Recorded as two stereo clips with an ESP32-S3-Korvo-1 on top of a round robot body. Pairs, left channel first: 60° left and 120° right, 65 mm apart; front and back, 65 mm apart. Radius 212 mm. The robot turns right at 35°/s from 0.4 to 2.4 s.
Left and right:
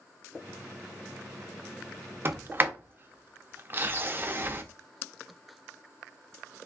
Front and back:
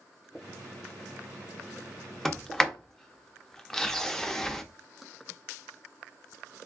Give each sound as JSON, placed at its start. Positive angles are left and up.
{"t": 2.2, "sound": "a sliding door", "azimuth_deg": -85, "distance_m": 0.7}